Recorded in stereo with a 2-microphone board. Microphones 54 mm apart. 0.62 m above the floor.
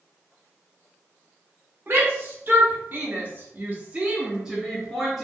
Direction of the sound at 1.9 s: 40° right (ahead or behind).